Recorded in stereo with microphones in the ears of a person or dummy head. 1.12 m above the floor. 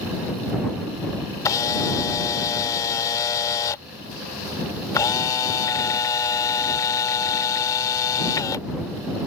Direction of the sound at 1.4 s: 15° left (ahead or behind).